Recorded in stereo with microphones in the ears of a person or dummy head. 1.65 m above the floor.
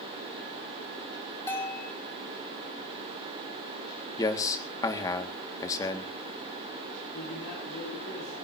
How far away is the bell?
About 2.5 m.